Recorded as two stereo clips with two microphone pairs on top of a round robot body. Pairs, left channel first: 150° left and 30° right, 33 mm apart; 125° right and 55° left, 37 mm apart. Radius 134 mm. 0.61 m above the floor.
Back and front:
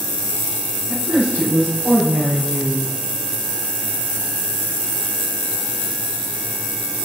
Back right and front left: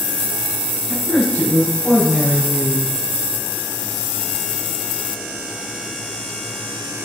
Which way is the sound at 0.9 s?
20° right.